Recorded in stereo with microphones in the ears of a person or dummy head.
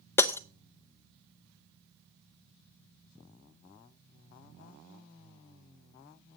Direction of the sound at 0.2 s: 20° left (ahead or behind).